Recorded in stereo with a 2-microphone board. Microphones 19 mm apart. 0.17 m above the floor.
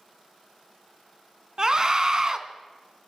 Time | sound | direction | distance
1.6 | a scream | 30° right (ahead or behind) | 1.4 m